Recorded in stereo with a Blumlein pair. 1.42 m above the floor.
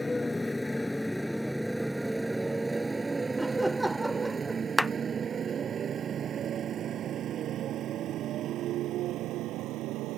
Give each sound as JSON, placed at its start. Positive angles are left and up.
{"t": 0.0, "sound": "a motorcycle", "azimuth_deg": 10}
{"t": 3.4, "sound": "laughter", "azimuth_deg": -5}
{"t": 4.8, "sound": "a clap", "azimuth_deg": 0}